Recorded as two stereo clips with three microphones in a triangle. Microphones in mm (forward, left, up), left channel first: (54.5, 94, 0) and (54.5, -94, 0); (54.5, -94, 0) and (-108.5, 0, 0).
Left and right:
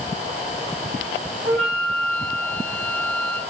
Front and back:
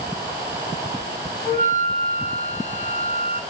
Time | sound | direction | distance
1.4 | a flute | 85° right | 5 m